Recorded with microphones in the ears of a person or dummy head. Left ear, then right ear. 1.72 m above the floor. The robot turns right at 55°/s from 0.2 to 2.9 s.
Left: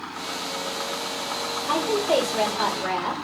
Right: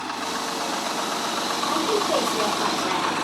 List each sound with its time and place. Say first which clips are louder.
1.7 s a woman speaking: left 2 dB; 40° left, 1.0 m; by 3.1 s 105° left, 1.0 m